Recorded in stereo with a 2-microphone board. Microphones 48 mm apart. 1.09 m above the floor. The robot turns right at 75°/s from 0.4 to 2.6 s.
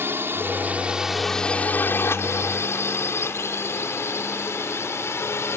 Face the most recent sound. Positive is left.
turn(degrees=65)  # may be behind; listen again after turning